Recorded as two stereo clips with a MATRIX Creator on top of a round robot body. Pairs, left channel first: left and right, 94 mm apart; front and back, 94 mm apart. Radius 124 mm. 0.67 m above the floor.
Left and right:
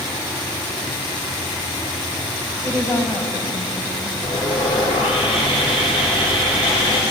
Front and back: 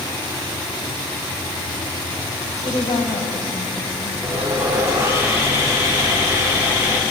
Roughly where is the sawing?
Behind left.